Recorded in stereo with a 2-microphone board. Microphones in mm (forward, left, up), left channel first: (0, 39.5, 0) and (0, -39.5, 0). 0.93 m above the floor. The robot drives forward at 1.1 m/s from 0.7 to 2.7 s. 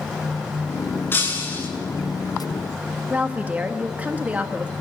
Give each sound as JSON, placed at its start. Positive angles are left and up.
{"t": 1.1, "sound": "breaking glass", "side_deg": 25, "distance_m": 6.0}
{"t": 3.1, "sound": "a woman speaking", "side_deg": -20, "distance_m": 1.4}